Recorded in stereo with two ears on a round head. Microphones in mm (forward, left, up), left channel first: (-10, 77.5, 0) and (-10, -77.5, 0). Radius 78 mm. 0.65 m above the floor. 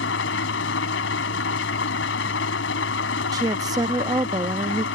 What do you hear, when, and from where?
0.0 s an engine running: 75° left (ahead or behind)
3.3 s a woman speaking: 20° right (ahead or behind)